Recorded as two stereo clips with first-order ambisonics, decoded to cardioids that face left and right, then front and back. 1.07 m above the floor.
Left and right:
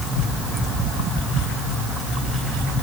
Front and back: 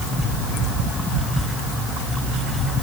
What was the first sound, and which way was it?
Only background noise.